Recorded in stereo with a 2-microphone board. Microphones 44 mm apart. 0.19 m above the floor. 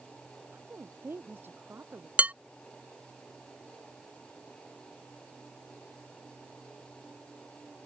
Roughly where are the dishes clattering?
Right.